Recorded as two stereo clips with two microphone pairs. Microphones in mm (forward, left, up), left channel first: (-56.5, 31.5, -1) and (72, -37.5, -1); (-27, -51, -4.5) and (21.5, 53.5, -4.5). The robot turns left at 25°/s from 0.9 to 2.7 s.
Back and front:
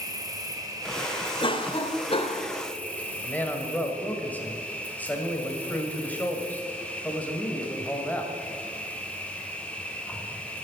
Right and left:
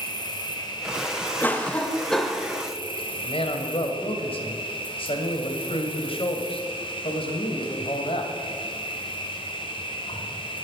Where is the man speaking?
130° right, 1.9 m.